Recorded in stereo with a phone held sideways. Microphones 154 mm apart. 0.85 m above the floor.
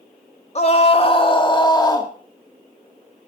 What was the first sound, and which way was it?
A scream, 45° left (ahead or behind).